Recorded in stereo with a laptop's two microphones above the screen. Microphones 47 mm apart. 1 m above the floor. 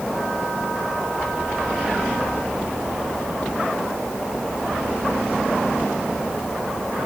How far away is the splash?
I don't hear a splash.